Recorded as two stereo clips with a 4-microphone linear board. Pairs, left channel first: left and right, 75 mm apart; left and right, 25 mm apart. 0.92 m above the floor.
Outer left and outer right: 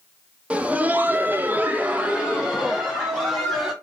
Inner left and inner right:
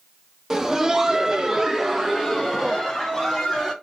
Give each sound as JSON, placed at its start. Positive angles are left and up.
{"t": 0.5, "sound": "laughter", "side_deg": -15, "distance_m": 0.7}